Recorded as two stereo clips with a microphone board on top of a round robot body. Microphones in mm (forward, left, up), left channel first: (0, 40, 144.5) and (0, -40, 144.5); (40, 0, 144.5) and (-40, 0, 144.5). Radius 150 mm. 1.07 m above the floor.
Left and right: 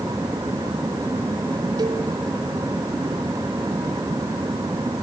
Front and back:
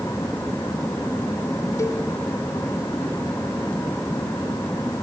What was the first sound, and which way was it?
A cowbell, 55° right.